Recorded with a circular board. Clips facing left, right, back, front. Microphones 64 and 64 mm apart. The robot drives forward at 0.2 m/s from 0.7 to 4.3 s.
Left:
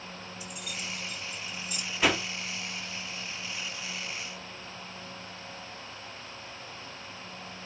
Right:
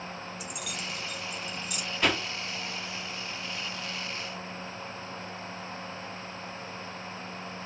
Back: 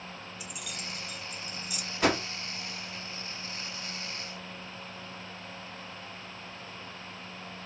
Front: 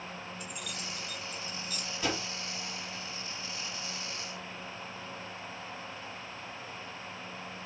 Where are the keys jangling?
95° right, 1.4 m; by 1.8 s 105° right, 1.4 m.